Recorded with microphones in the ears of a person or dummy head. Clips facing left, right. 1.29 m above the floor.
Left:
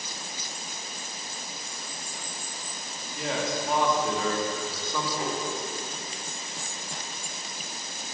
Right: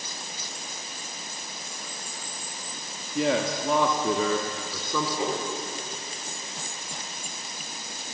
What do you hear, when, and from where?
3.1 s a man speaking: 65° right (ahead or behind), 2.5 m; by 5.1 s 80° right, 3.5 m
5.2 s a whoosh: 25° right (ahead or behind), 6 m